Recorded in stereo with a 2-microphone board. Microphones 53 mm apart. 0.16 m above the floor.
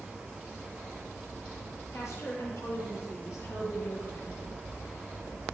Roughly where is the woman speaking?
Left.